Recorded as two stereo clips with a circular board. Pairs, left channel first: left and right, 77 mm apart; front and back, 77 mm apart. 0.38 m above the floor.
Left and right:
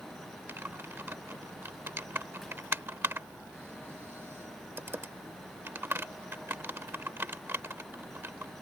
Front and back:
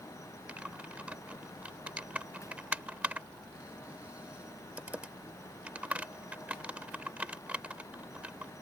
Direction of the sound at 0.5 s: 120° right.